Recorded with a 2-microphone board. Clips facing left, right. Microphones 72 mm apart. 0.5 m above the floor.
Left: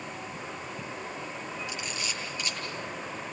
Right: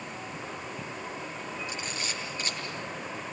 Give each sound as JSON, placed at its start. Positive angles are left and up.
{"t": 1.7, "sound": "a camera shutter", "side_deg": -40, "distance_m": 8.5}